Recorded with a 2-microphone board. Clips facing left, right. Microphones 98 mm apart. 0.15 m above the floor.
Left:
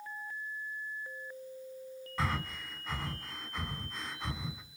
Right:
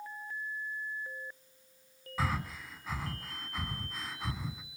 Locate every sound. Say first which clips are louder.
2.2 s breathing: right 1 dB; 5° right (ahead or behind), 1.4 m